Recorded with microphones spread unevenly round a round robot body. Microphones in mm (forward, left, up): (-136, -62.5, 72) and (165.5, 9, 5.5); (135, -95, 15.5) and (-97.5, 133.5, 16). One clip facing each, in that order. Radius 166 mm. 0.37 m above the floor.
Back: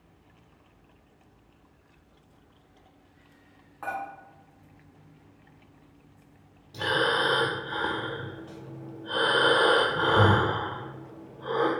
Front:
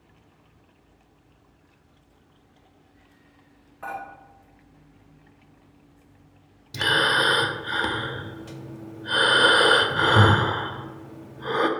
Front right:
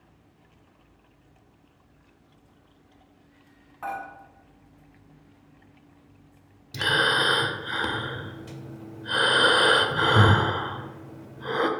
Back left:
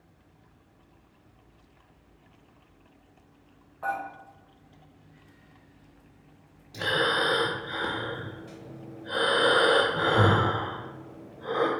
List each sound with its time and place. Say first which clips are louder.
3.8 s dishes clattering: even, back left 1 dB; 85° right, 2 m
6.7 s breathing: front 1 dB, even; 5° left, 0.5 m